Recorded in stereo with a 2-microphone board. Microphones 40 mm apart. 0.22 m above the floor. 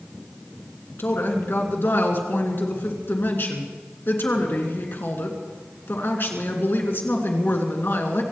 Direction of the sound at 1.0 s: 60° left (ahead or behind).